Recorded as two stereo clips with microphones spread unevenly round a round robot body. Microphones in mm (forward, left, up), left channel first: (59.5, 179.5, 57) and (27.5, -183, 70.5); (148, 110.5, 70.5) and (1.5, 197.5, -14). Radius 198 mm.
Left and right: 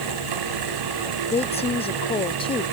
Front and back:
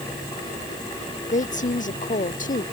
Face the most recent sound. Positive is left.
turn(degrees=10)